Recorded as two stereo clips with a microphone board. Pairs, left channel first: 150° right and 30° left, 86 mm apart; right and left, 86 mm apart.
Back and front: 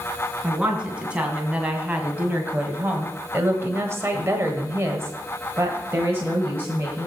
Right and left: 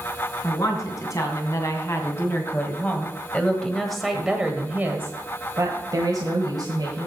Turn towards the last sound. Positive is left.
turn(degrees=90)